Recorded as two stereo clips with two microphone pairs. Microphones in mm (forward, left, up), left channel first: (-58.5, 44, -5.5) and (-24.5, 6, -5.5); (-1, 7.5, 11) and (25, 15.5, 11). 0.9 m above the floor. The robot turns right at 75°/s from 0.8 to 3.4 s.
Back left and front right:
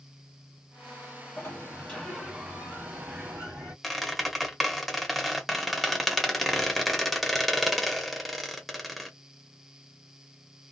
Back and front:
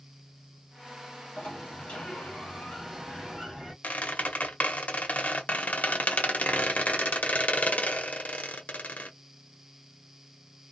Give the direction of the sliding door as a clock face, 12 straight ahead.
7 o'clock.